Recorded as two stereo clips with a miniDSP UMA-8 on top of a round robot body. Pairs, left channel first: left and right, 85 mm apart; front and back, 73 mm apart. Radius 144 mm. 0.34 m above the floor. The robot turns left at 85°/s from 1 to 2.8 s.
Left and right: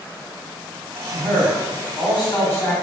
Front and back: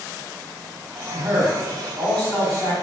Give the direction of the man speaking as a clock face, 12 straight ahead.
7 o'clock.